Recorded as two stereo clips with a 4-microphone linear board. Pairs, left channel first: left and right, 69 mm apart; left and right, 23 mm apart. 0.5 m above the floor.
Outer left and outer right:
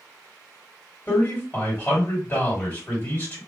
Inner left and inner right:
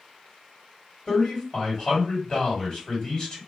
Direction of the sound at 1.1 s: 30° left (ahead or behind).